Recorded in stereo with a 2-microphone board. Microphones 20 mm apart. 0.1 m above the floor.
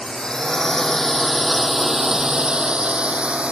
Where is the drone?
30° left (ahead or behind); by 3.5 s 60° right (ahead or behind).